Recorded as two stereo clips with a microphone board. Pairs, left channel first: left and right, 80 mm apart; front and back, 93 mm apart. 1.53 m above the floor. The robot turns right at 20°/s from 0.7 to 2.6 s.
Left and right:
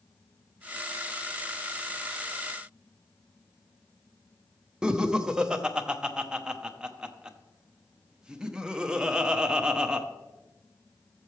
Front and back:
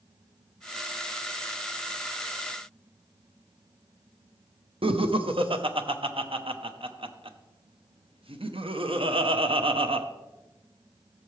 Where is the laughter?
170° right, 0.8 m.